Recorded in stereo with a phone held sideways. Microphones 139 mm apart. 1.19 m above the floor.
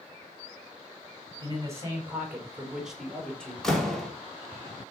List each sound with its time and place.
1.4 s a man speaking: 30° right (ahead or behind), 4 m; by 3.5 s 5° left (ahead or behind), 4 m
3.6 s a door slam: centre (ahead or behind), 2.5 m